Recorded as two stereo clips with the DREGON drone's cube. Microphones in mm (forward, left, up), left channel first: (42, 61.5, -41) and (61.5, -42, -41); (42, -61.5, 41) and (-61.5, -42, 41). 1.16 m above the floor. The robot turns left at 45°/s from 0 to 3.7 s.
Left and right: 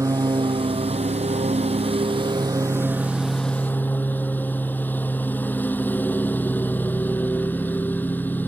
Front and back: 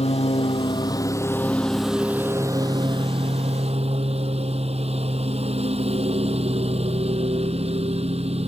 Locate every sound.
0.0 s a lawn mower: 20° right; by 8.5 s 175° left